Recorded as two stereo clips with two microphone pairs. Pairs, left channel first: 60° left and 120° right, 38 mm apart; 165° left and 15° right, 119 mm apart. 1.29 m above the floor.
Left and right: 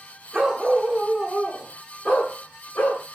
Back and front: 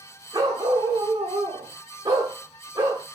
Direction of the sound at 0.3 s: 60° right.